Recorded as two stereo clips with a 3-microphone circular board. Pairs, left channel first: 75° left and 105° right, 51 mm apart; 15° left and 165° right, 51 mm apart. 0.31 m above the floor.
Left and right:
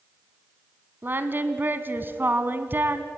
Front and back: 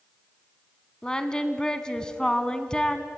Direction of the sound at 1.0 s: 55° right.